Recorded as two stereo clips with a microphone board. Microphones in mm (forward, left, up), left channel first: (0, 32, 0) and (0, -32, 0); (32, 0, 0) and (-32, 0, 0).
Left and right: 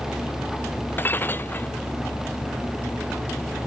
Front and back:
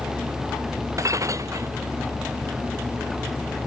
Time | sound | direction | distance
1.0 | breaking glass | 150° left | ?